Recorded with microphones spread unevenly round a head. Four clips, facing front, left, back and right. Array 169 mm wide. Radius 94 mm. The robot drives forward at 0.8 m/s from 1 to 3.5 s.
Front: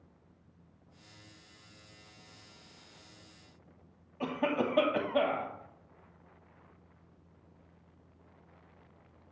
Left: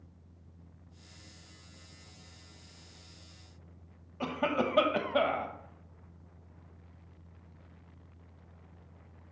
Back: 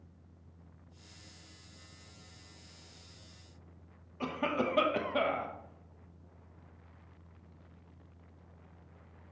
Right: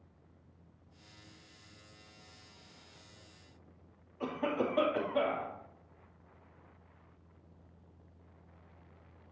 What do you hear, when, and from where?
4.2 s a cough: 80° left, 1.0 m